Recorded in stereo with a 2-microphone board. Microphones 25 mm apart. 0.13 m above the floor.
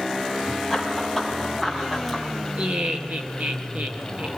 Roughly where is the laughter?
Right.